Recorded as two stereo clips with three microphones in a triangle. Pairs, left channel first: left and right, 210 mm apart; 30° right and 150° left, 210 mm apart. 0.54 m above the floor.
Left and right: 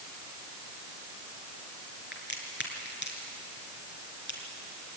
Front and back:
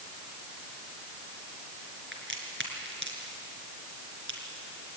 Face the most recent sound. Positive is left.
turn(degrees=120)